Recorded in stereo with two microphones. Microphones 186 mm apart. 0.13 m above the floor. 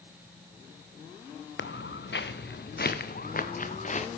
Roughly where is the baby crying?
I don't hear a baby crying.